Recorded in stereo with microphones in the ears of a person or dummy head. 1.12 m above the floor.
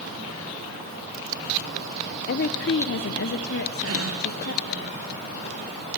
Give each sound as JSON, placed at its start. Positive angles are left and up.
{"t": 2.3, "sound": "a woman speaking", "side_deg": 55, "distance_m": 0.5}
{"t": 3.8, "sound": "a gasp", "side_deg": -70, "distance_m": 3.0}